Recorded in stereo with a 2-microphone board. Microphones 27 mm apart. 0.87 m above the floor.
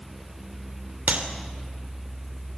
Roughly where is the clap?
Right.